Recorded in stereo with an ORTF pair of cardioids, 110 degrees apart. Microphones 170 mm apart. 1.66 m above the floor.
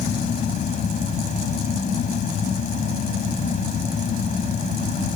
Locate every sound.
0.0 s a fan: 45° left